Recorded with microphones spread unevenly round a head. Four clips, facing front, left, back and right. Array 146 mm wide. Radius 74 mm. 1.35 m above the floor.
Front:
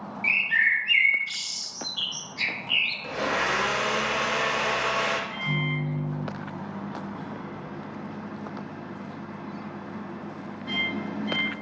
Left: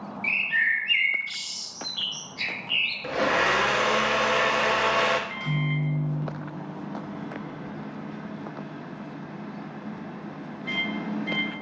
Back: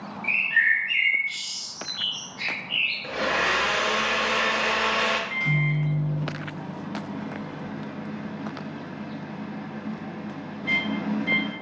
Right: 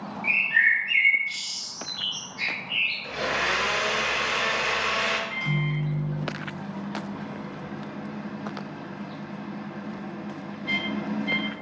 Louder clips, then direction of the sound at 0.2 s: Right 3 dB, back 1 dB; 45° left.